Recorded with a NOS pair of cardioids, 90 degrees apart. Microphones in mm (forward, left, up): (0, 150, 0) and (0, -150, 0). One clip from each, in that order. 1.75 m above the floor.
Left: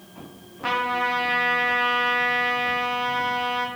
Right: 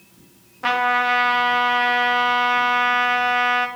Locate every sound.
0.6 s a trumpet: 40° right, 2.5 m